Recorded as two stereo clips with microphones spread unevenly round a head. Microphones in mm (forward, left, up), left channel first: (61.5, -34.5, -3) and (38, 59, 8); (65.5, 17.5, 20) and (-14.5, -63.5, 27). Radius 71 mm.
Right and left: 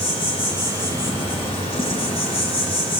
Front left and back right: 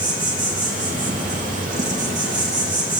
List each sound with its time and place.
0.0 s an insect: 130° right, 1.7 m